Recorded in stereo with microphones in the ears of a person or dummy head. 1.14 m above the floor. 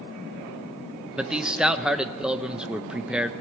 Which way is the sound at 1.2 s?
5° right (ahead or behind).